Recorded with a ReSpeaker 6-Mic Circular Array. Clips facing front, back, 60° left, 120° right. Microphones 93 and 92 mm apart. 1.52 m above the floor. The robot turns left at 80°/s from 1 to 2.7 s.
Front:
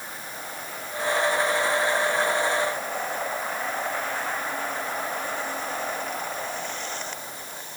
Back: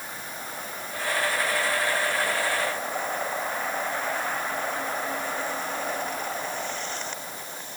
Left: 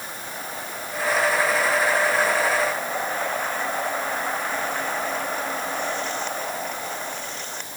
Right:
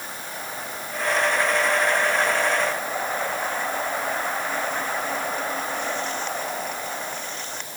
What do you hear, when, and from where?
Only background noise.